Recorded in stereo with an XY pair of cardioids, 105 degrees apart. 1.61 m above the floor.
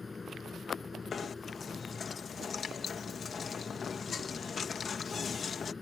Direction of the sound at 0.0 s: 30° left.